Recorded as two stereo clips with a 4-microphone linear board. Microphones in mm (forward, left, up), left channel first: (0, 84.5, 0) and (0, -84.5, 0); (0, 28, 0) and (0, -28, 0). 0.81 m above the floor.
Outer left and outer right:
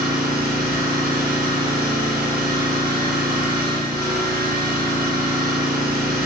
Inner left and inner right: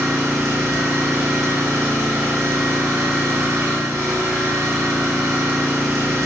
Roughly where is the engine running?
Right.